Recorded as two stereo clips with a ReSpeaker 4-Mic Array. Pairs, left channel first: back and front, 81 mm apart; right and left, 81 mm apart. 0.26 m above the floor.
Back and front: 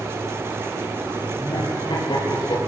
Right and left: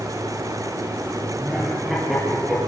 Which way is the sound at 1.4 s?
175° left.